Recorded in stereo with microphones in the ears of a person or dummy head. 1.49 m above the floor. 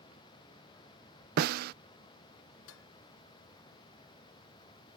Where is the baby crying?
I don't hear a baby crying.